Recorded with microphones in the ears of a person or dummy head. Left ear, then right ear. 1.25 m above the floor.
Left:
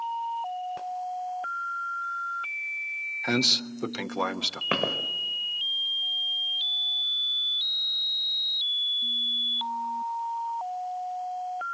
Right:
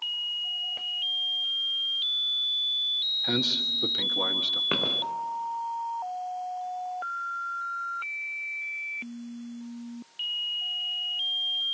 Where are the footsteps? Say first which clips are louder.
Right 1 dB; 15° left (ahead or behind), 3.5 m.